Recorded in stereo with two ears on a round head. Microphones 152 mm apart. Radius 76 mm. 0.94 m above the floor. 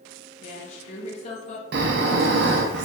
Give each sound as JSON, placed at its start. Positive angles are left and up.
{"t": 0.4, "sound": "a woman speaking", "side_deg": 40, "distance_m": 0.8}
{"t": 1.7, "sound": "snoring", "side_deg": -65, "distance_m": 0.5}